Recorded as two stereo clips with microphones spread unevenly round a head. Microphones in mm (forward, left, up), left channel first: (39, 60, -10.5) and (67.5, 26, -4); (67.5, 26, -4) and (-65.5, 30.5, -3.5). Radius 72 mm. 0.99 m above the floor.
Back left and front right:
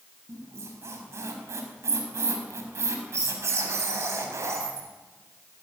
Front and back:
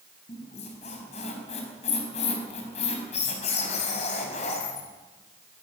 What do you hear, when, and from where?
0.3 s a squeak: 50° right, 4.5 m